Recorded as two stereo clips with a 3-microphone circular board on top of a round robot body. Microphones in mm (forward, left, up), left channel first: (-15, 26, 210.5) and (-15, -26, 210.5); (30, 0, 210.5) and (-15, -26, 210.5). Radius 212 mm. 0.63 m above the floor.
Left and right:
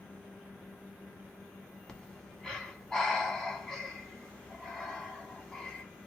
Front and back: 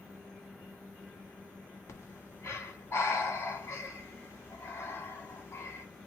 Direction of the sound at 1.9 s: 10° left.